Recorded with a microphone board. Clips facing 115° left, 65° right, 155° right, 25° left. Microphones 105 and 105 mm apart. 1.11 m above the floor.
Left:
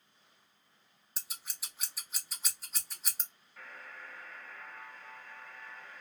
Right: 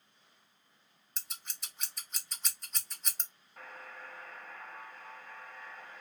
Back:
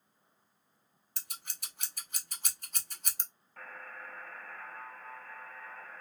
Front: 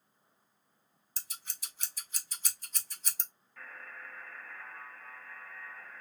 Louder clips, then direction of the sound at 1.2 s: Even, back 1 dB; 160° right.